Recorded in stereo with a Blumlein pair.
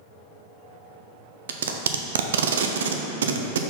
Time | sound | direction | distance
1.5 | tape being pulled | 65° right | 0.5 m